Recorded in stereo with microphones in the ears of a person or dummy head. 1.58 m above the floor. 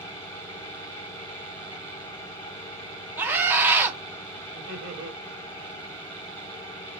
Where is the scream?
15° right (ahead or behind), 1.2 m.